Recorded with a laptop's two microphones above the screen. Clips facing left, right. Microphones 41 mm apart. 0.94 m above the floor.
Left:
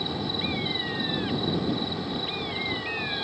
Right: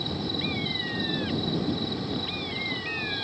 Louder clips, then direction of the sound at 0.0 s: Left 1 dB; 20° left (ahead or behind).